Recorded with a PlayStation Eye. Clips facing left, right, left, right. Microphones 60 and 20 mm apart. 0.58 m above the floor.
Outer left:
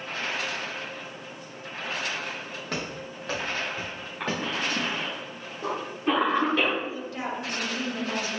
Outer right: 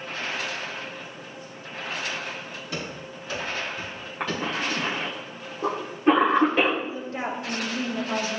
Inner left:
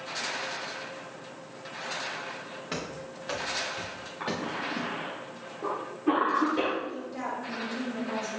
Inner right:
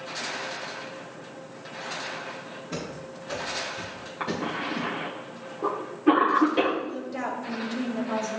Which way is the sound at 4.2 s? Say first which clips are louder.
Outer right 1 dB, inner right 3 dB; 25° right (ahead or behind).